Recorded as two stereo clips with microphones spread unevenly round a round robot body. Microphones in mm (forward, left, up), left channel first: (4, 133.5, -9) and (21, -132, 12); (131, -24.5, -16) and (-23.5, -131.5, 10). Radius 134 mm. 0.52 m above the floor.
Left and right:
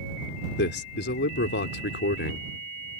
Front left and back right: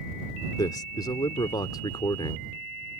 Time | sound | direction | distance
0.6 | a man speaking | 90° left | ?